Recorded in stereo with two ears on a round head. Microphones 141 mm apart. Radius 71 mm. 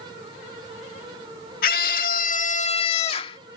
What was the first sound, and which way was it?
A scream, 60° left (ahead or behind).